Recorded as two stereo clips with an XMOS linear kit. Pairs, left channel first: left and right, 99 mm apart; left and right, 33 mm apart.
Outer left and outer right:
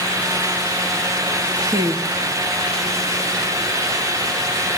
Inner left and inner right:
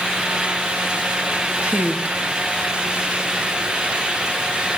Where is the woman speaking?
35° right (ahead or behind), 1.8 m.